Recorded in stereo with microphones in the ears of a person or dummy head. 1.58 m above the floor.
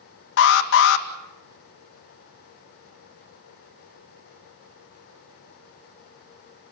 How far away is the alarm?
About 1.7 m.